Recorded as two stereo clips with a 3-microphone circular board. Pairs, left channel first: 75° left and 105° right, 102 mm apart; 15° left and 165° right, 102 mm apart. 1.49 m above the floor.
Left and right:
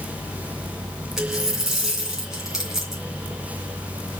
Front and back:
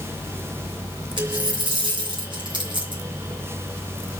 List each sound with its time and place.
1.2 s a dropped coin: 170° left, 2.5 m